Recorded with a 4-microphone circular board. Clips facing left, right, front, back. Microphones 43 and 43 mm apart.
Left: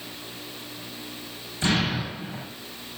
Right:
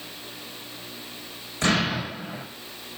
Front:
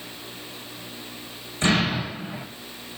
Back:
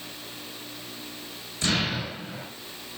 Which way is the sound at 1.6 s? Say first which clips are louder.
Right 1 dB, front 5 dB; 60° right.